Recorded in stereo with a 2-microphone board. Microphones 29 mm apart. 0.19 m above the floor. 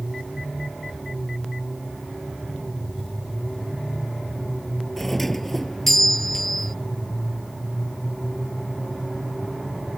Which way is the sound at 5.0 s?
10° left (ahead or behind).